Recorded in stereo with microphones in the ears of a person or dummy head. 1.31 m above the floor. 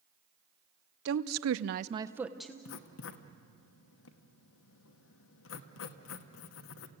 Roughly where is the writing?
Left.